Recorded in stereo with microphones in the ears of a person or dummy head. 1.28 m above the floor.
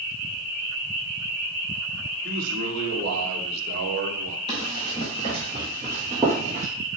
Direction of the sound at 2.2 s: 45° right (ahead or behind).